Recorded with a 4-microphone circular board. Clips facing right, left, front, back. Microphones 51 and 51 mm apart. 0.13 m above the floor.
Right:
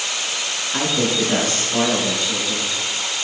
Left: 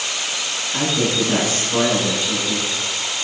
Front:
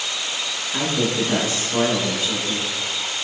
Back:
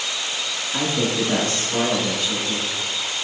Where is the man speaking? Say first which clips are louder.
Even, even; 90° right, 1.0 m; by 2.7 s 80° left, 1.5 m.